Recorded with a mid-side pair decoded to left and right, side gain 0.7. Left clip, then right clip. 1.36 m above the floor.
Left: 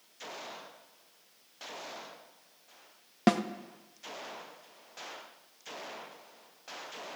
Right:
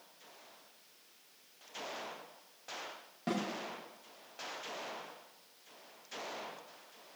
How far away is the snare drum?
About 0.9 m.